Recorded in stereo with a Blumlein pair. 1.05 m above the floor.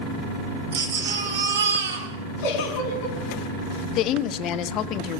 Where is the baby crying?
65° right, 3 m.